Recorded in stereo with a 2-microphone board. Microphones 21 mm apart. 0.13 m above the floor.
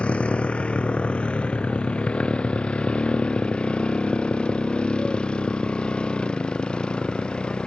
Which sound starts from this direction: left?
A motorcycle, at 0.0 s.